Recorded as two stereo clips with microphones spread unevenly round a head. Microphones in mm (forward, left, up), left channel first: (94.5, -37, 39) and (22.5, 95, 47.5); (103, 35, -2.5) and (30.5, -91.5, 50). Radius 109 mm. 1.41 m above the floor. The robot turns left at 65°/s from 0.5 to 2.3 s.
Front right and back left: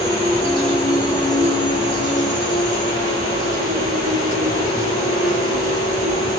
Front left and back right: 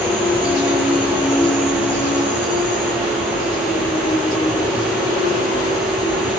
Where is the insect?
95° right, 1.3 m; by 6.4 s 145° left, 1.3 m.